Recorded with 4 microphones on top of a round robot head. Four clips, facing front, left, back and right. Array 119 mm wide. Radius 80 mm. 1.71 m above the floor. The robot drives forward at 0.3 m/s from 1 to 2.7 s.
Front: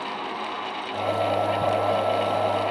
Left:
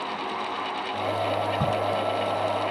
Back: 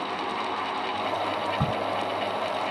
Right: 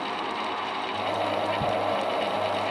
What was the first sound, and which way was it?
A crack, 145° left.